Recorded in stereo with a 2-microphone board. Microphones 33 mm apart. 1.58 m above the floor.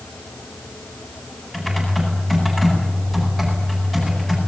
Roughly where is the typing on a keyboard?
Centre.